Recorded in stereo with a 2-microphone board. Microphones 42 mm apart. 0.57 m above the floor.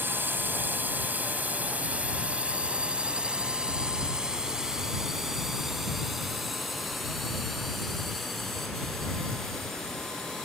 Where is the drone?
55° right (ahead or behind); by 10.4 s 10° left (ahead or behind).